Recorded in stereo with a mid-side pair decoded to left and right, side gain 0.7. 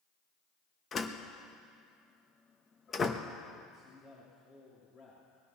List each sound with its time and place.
0.9 s a door slam: 30° left, 1.1 m
3.7 s a man speaking: 40° left, 3 m